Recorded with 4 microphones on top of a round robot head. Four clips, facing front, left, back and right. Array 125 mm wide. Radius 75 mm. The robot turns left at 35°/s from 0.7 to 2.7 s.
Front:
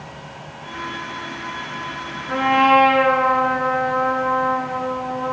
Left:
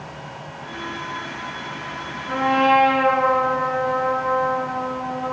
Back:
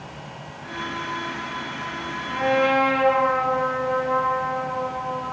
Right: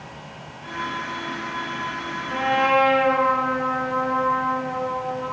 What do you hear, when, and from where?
2.3 s a trumpet: 40° left, 7.5 m; by 5.3 s 25° left, 7.5 m